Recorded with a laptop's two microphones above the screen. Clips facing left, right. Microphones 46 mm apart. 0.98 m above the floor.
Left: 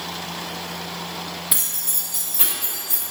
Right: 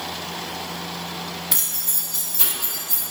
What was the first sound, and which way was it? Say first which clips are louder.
Keys jangling: even; 5° left (ahead or behind).